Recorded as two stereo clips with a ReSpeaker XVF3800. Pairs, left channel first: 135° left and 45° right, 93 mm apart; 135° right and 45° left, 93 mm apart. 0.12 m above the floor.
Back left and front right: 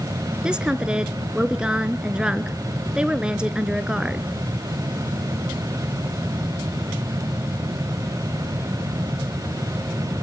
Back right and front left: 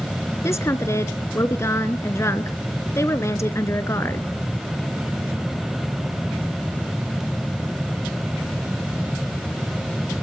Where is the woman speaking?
115° right, 1.4 m.